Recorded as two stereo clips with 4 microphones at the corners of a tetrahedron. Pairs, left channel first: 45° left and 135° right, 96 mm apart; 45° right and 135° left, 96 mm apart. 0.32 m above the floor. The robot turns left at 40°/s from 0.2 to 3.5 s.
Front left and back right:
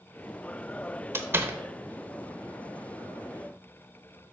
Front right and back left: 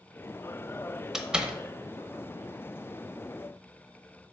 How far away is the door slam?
About 0.9 m.